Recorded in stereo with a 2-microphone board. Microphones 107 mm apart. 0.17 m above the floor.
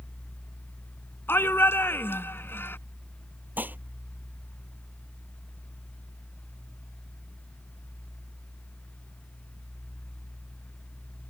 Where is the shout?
20° left (ahead or behind).